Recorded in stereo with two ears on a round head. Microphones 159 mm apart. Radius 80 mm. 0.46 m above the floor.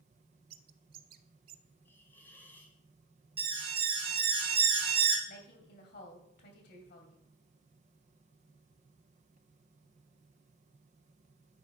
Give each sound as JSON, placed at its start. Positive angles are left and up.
{"t": 0.5, "sound": "a bird", "side_deg": -55, "distance_m": 0.7}
{"t": 1.9, "sound": "a hiss", "side_deg": 10, "distance_m": 2.0}
{"t": 3.4, "sound": "an alarm", "side_deg": -30, "distance_m": 1.7}
{"t": 5.3, "sound": "a woman speaking", "side_deg": 60, "distance_m": 2.5}